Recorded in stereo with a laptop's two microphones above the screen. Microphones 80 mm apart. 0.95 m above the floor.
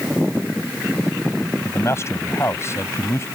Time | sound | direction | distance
1.6 | a man speaking | 35° left (ahead or behind) | ?